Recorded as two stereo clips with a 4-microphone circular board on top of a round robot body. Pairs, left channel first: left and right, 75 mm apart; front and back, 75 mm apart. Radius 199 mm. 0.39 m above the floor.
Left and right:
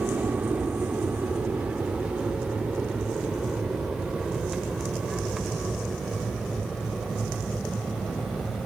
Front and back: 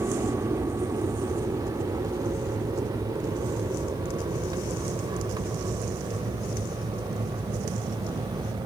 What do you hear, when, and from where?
0.0 s an aircraft: 155° right; by 8.7 s straight behind